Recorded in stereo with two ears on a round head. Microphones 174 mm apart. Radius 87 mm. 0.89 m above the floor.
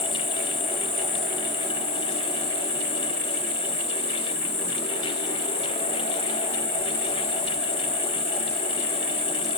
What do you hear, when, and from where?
0.0 s an insect: 30° left (ahead or behind), 6.5 m